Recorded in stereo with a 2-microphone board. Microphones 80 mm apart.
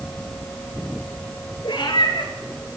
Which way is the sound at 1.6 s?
80° left.